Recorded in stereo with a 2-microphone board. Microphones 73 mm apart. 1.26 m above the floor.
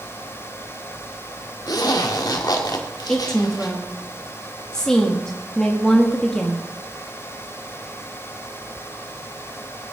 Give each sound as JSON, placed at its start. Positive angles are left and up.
{"t": 1.7, "sound": "a zipper", "side_deg": 65, "distance_m": 1.7}
{"t": 3.1, "sound": "a woman speaking", "side_deg": 10, "distance_m": 1.7}